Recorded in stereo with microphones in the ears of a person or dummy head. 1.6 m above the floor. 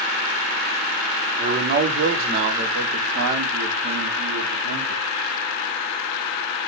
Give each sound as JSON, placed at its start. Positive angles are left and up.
{"t": 1.4, "sound": "a man speaking", "side_deg": -50, "distance_m": 0.9}